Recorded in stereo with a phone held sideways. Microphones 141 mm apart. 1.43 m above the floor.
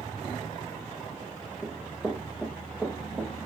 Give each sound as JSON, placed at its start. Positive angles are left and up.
{"t": 1.6, "sound": "running footsteps", "side_deg": 5, "distance_m": 4.0}